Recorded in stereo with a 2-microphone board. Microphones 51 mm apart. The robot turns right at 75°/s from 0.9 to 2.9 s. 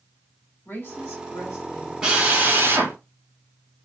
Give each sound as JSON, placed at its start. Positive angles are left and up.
{"t": 0.7, "sound": "a woman speaking", "azimuth_deg": 55, "distance_m": 1.6}
{"t": 2.0, "sound": "a drill", "azimuth_deg": -165, "distance_m": 1.1}